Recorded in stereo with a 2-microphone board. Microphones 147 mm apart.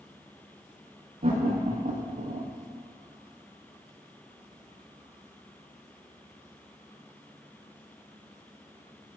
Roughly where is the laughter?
Right.